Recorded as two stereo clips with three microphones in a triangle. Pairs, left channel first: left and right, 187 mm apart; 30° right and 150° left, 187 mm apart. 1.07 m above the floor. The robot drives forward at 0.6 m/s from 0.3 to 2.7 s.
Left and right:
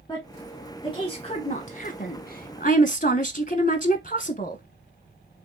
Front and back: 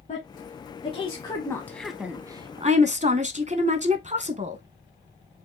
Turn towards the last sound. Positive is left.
turn(degrees=115)